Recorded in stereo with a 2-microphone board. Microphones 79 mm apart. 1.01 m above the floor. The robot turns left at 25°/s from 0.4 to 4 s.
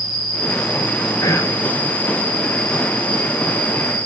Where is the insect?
70° left, 5.5 m; by 4.1 s 20° right, 5.5 m.